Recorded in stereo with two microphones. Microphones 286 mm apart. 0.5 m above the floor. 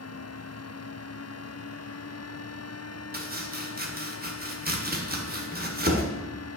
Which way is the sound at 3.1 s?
35° right (ahead or behind).